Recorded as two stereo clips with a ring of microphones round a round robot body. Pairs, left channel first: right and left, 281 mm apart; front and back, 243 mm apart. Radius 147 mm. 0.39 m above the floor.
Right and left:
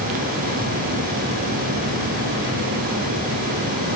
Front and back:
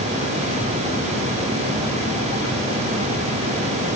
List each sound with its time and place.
Only background noise.